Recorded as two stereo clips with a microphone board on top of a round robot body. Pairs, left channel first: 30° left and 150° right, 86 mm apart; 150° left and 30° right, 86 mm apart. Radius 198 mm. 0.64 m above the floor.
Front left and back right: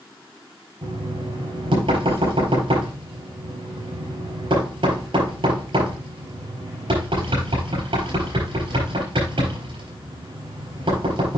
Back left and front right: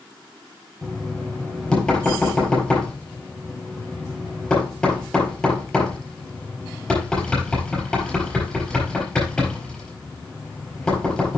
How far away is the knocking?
About 4.5 m.